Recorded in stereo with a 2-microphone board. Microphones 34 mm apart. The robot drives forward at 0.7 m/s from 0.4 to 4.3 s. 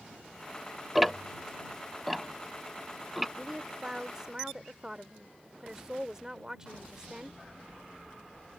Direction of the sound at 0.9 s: Centre (ahead or behind).